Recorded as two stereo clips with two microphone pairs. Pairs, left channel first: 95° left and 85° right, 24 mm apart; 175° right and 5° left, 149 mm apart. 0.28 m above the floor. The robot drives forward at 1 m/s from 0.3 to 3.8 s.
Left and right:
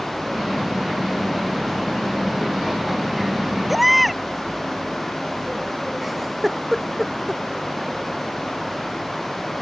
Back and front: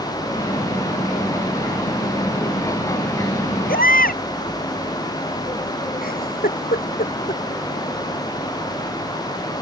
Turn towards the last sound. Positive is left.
turn(degrees=-170)